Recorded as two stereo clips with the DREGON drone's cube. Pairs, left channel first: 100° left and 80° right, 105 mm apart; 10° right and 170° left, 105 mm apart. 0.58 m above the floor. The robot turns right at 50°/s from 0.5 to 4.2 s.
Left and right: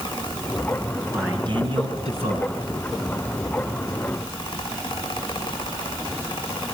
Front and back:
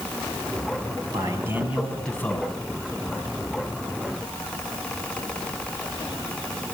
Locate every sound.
1.1 s a man speaking: 140° right, 6 m; by 2.5 s 70° right, 6 m